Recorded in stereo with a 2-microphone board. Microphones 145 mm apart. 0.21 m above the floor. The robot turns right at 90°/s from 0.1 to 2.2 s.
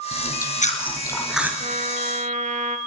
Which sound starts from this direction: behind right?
A trumpet, at 1.6 s.